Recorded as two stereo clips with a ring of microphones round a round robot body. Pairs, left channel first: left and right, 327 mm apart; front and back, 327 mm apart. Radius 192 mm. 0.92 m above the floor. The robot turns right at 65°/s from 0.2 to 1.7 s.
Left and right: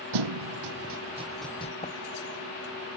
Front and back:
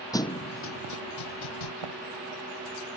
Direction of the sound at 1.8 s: 160° left.